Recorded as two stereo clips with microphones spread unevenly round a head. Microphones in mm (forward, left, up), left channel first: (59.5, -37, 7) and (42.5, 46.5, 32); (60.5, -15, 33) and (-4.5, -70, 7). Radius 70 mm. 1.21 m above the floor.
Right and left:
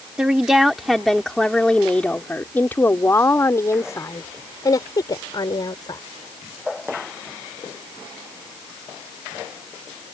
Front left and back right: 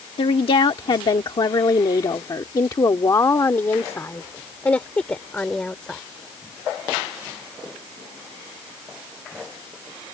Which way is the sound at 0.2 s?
25° left.